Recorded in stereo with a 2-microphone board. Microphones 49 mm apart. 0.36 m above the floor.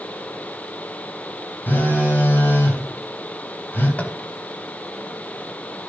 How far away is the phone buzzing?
About 2 m.